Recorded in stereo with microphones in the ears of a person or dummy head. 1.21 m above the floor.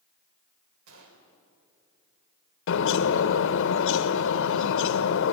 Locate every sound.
0.9 s a gunshot: 75° right (ahead or behind), 3.5 m
2.7 s a bird: 65° left (ahead or behind), 0.8 m